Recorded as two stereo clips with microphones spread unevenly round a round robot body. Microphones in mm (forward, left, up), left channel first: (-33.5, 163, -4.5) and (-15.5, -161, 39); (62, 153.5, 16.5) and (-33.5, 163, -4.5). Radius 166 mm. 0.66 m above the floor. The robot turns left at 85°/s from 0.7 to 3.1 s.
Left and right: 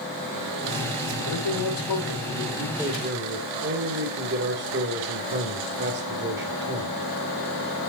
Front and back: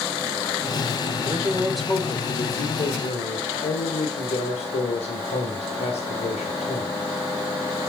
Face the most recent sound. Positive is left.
turn(degrees=-25)